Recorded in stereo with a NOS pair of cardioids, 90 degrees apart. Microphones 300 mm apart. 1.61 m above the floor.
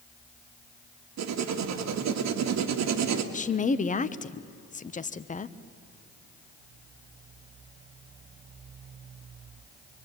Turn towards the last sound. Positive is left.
turn(degrees=25)